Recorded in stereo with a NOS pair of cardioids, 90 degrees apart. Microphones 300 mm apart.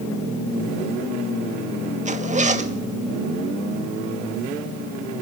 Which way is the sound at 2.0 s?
25° right.